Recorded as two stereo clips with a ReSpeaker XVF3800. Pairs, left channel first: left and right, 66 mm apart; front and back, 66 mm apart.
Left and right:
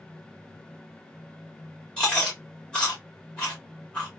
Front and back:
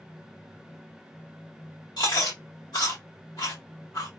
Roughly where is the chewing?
Ahead.